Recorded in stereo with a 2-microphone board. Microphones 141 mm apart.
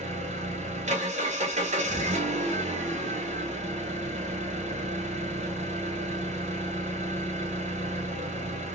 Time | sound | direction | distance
0.0 | an engine running | 60° right (ahead or behind) | 1.0 m